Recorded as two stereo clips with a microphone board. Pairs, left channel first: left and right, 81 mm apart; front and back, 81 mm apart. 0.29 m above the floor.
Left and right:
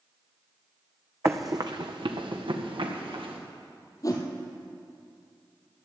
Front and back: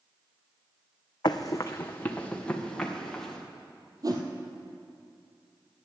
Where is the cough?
No cough in this recording.